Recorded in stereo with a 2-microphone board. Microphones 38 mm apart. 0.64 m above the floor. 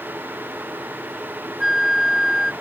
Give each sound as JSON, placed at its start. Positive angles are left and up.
{"t": 1.6, "sound": "a flute", "side_deg": -5}